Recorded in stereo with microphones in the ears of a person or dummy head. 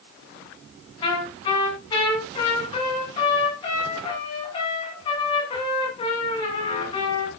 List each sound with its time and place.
1.0 s a trumpet: 30° left (ahead or behind), 8.5 m